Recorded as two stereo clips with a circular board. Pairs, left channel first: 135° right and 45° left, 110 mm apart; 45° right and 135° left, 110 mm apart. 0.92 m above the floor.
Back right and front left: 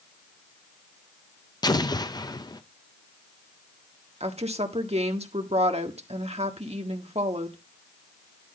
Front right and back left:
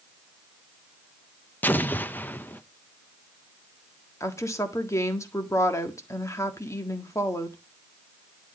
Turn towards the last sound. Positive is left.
turn(degrees=20)